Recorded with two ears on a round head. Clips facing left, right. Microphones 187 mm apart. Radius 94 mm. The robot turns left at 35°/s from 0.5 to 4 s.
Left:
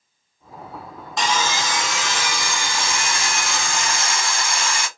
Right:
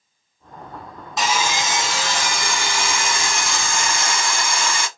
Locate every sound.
1.2 s sawing: straight ahead, 1.2 m; by 4.9 s 100° right, 1.2 m